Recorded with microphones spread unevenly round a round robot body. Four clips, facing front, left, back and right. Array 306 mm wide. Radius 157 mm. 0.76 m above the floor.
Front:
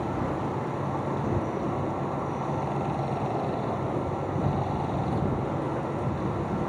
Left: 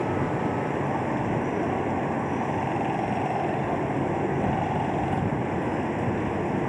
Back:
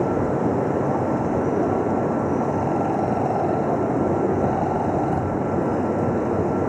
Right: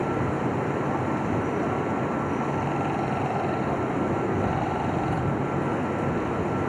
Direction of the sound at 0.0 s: Straight behind.